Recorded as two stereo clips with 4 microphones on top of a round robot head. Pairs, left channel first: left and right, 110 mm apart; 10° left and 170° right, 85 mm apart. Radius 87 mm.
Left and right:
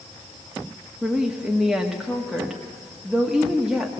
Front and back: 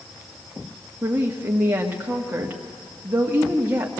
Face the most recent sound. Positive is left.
turn(degrees=-170)